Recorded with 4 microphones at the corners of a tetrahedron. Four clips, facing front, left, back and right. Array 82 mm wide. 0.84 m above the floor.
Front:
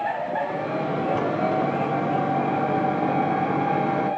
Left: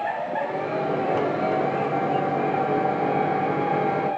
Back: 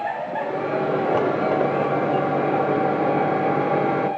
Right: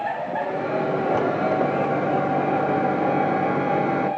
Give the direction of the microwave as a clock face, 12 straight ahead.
5 o'clock.